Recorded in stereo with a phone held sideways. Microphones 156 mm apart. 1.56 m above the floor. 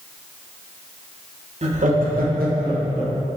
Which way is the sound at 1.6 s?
45° right (ahead or behind).